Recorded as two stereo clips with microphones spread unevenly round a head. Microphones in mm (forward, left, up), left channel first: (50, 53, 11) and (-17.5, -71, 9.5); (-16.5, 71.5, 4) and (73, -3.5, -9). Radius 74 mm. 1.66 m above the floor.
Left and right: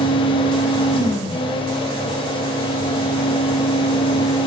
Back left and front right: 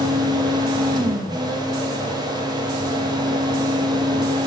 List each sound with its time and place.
0.0 s a fan: 10° left, 1.3 m